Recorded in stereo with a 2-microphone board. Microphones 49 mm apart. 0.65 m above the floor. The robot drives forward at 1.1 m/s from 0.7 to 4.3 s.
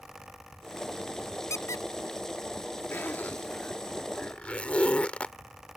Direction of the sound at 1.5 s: 85° left.